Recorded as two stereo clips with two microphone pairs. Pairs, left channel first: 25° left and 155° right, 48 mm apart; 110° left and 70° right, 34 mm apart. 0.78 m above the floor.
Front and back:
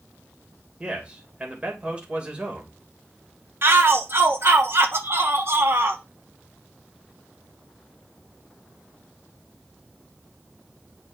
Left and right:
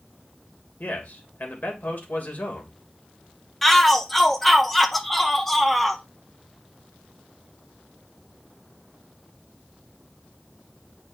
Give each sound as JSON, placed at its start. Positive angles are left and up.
{"t": 0.8, "sound": "a man speaking", "azimuth_deg": 140, "distance_m": 2.5}
{"t": 3.6, "sound": "a shout", "azimuth_deg": -165, "distance_m": 1.2}